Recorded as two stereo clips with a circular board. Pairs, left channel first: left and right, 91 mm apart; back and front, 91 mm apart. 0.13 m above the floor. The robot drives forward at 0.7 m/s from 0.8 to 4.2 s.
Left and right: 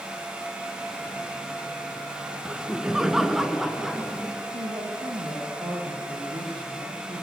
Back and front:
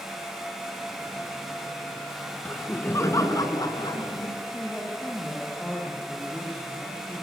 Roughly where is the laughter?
Behind.